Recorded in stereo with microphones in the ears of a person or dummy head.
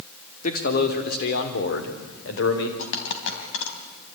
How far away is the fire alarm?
No fire alarm in this recording.